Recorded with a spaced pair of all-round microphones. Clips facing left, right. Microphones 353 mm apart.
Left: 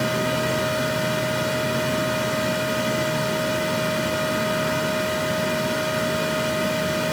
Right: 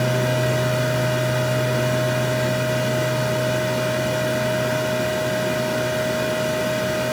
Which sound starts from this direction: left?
A fan, at 0.0 s.